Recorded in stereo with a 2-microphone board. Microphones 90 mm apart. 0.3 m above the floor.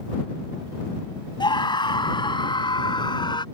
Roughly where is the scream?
Left.